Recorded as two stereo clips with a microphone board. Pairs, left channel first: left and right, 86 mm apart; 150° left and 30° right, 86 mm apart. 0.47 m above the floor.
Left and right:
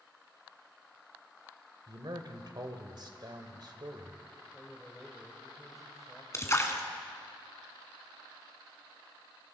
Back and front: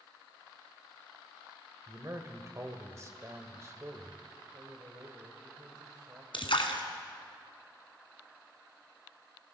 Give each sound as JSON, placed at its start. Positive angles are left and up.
{"t": 1.9, "sound": "a man speaking", "azimuth_deg": -75, "distance_m": 2.5}
{"t": 4.5, "sound": "a man speaking", "azimuth_deg": 0, "distance_m": 2.0}
{"t": 6.3, "sound": "a splash", "azimuth_deg": 145, "distance_m": 1.9}